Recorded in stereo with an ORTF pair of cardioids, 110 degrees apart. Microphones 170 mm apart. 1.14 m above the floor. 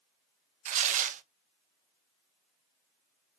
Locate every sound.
0.7 s tearing paper: 50° right, 0.5 m